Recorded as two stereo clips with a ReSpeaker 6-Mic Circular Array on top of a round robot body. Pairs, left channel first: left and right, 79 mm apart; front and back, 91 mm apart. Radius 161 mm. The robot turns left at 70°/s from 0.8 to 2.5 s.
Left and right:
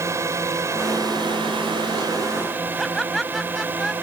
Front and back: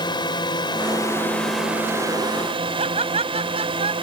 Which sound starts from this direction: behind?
Laughter, at 2.8 s.